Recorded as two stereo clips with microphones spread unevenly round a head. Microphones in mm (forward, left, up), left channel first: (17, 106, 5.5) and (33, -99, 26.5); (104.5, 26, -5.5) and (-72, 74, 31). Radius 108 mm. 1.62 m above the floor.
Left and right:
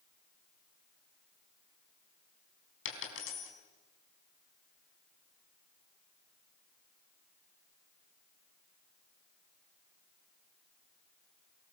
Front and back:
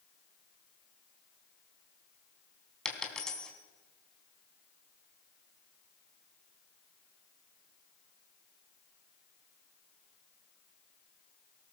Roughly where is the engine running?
I don't hear an engine running.